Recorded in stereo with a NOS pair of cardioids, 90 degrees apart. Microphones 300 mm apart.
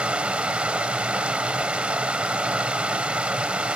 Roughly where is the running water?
Ahead.